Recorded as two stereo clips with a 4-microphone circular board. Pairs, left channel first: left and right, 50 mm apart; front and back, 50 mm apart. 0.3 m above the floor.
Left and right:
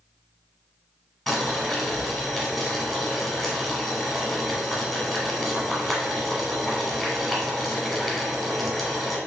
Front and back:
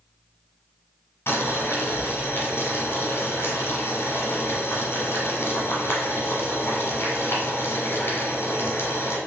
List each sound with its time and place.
1.3 s boiling: straight ahead, 1.0 m